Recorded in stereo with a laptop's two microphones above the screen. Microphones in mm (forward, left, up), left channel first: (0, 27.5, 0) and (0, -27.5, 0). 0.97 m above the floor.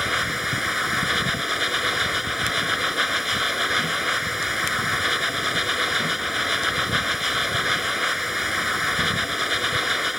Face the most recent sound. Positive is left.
turn(degrees=-5)  # may be behind; listen again after turning